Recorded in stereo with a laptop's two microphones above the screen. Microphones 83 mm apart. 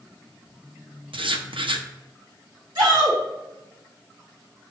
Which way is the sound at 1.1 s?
85° right.